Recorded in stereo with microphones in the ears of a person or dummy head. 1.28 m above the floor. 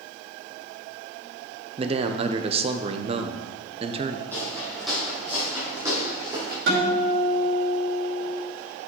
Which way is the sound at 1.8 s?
30° right (ahead or behind).